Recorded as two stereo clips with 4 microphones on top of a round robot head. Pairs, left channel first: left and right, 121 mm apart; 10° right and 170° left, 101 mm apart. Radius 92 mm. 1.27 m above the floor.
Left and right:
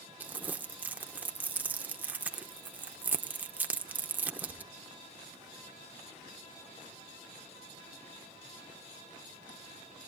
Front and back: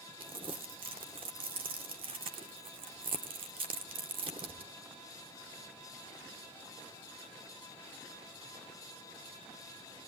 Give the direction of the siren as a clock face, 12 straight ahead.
I don't hear a siren.